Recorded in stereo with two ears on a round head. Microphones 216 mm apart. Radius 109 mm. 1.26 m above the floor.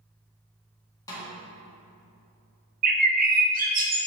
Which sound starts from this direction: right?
A bird, at 2.8 s.